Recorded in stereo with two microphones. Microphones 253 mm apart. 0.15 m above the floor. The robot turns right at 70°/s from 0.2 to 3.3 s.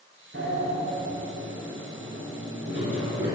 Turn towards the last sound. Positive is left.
turn(degrees=45)  # may be behind; listen again after turning